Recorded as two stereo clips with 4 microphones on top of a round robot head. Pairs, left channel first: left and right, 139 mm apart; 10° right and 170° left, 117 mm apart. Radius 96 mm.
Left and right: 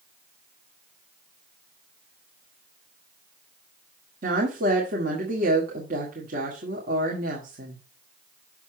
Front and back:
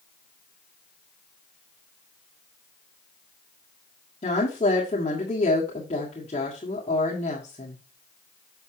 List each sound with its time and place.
4.2 s a woman speaking: 60° right, 2.0 m